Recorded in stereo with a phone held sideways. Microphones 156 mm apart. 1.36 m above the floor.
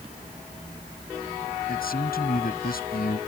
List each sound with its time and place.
1.7 s a man speaking: 70° left (ahead or behind)